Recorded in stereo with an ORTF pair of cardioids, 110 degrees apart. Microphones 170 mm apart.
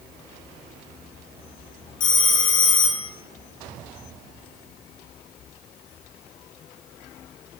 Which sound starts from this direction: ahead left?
A phone ringing, at 2.0 s.